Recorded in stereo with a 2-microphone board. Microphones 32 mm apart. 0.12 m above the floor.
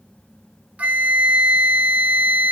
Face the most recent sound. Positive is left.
turn(degrees=-50)  # may be behind; listen again after turning